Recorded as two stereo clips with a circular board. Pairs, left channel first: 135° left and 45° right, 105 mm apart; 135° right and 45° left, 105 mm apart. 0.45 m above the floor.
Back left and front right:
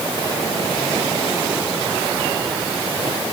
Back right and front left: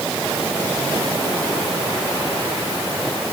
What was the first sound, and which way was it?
Only background noise.